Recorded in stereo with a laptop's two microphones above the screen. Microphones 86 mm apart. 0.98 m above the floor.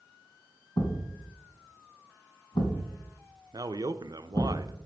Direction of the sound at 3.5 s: 50° right (ahead or behind).